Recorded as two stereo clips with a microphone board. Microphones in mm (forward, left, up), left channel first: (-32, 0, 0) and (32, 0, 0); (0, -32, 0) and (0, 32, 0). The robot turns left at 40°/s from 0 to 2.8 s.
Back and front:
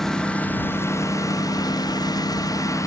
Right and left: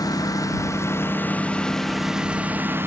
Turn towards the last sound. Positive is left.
turn(degrees=145)